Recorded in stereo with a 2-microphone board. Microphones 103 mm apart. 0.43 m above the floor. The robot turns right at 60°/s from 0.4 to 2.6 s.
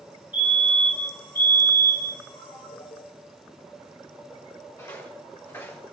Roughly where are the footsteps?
Left.